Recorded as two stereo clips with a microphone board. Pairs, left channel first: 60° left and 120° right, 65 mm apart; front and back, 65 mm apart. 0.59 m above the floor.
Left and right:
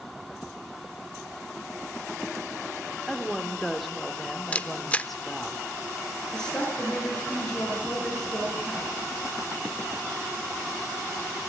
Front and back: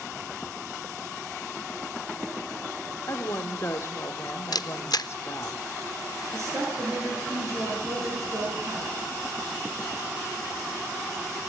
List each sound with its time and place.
3.1 s a woman speaking: 30° right, 1.9 m
4.5 s a camera shutter: 10° right, 0.6 m
6.3 s a woman speaking: 140° left, 8.5 m